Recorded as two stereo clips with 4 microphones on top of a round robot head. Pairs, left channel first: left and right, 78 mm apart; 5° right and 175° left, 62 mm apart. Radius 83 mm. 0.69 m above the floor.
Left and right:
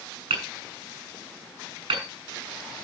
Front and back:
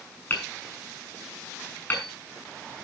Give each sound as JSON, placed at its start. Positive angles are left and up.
{"t": 0.3, "sound": "hammering", "azimuth_deg": -70, "distance_m": 7.0}